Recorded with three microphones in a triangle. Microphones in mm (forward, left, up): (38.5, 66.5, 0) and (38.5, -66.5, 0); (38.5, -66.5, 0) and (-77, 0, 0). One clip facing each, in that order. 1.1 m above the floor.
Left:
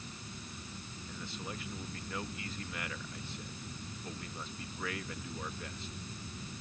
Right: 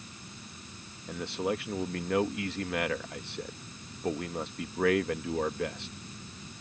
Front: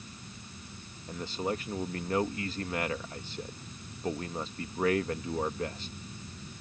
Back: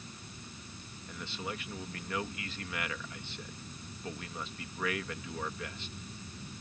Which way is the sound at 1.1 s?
80° right.